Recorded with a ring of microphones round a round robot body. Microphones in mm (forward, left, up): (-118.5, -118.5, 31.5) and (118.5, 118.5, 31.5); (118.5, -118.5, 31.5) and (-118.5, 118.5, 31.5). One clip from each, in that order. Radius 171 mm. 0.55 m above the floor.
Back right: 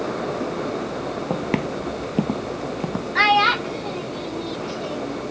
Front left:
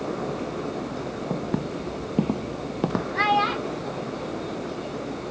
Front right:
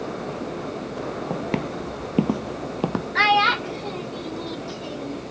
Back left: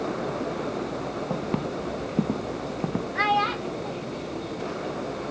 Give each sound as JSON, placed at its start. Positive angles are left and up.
{"t": 1.3, "sound": "footsteps", "azimuth_deg": -120}
{"t": 3.1, "sound": "a child speaking", "azimuth_deg": -90}